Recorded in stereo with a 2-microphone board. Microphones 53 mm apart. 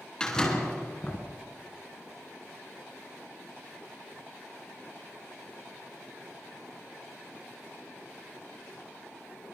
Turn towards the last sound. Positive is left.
turn(degrees=15)  # may be behind; listen again after turning